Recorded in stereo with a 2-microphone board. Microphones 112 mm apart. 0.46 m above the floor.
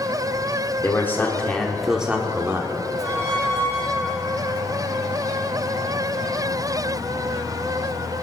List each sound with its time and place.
0.8 s a man speaking: 25° left (ahead or behind), 1.6 m; by 2.7 s 25° right (ahead or behind), 1.5 m
3.0 s a squeak: 85° right, 6 m